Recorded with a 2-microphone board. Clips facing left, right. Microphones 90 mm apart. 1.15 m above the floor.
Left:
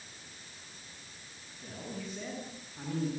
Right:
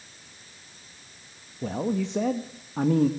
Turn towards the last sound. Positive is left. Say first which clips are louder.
# right 15 dB
turn(degrees=-85)